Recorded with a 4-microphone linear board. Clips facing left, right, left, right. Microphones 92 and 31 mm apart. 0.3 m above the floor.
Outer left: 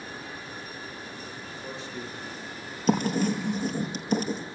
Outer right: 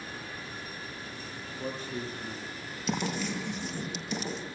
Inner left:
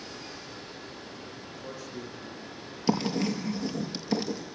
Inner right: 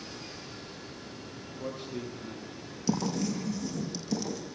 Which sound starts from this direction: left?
Writing, at 2.9 s.